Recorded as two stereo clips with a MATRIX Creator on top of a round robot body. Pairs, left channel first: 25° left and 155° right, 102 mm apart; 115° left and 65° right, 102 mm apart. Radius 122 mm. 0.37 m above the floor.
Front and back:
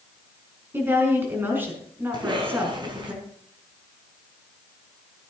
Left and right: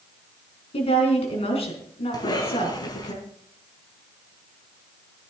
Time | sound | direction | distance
0.7 | a woman speaking | 130° left | 5 m
2.1 | a cough | 160° left | 4 m